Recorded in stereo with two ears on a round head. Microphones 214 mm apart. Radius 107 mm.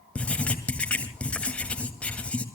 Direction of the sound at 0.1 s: 5° left (ahead or behind).